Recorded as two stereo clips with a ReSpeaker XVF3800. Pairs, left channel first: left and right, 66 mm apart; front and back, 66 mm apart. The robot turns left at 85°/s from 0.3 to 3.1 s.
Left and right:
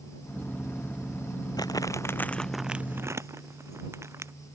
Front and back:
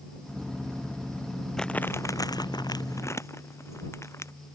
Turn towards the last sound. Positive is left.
turn(degrees=-45)